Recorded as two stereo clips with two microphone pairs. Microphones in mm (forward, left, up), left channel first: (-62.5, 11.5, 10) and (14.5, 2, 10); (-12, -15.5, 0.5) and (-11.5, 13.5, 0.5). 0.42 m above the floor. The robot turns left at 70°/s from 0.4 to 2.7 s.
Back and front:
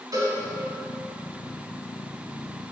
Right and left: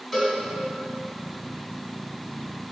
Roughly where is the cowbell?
Ahead.